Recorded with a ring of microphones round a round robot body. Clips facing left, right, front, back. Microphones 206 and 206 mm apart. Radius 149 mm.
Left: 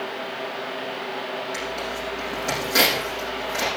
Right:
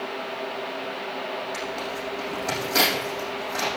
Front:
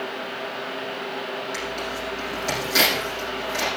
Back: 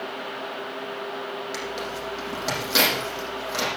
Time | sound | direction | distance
1.5 | tearing paper | 160° left | 7 m